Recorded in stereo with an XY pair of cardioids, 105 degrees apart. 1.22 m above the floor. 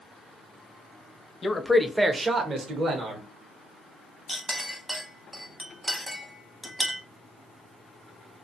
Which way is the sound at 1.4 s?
30° left.